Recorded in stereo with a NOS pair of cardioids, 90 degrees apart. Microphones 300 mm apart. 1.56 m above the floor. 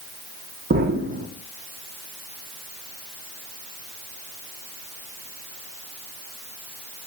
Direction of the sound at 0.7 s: 35° right.